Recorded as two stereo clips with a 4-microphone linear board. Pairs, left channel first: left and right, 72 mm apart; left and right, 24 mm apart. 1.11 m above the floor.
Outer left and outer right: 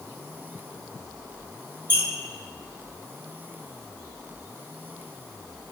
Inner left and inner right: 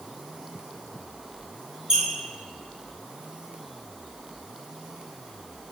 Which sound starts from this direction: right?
A squeak, at 1.9 s.